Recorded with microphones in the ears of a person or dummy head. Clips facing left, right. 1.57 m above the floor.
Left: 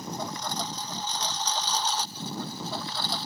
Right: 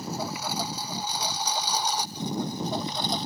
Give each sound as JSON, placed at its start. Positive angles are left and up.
{"t": 0.0, "sound": "a lawn mower", "side_deg": -10}